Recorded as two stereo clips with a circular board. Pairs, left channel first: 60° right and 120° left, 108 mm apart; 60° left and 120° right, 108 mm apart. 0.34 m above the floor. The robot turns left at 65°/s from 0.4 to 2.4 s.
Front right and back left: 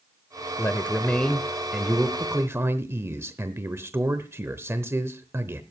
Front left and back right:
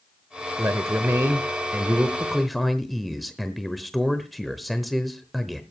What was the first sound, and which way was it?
A man speaking, 90° right.